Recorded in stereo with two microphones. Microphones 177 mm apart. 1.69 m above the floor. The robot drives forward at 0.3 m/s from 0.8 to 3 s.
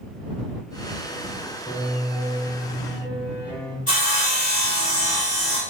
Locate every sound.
1.7 s a piano: 15° left (ahead or behind), 0.9 m; by 3.8 s 10° left (ahead or behind), 1.2 m
3.9 s sawing: 40° left (ahead or behind), 1.5 m